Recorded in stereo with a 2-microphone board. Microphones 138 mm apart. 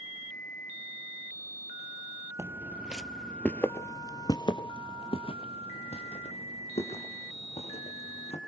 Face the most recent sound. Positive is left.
turn(degrees=50)  # may be behind; listen again after turning